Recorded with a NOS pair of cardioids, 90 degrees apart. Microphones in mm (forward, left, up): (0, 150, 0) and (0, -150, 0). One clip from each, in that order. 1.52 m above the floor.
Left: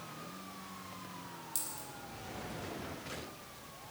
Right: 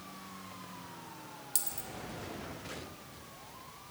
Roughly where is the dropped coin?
Ahead right.